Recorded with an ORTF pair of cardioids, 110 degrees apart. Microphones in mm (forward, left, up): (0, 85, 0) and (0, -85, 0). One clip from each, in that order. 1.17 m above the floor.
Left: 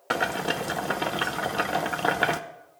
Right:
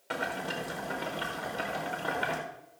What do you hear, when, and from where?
0.1 s boiling: 60° left, 0.9 m